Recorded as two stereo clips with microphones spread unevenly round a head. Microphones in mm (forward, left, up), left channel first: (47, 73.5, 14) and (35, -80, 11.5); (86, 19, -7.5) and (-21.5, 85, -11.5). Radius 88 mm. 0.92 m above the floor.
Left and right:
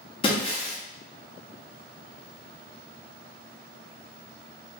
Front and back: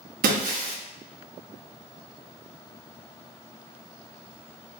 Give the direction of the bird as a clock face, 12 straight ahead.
No bird in this recording.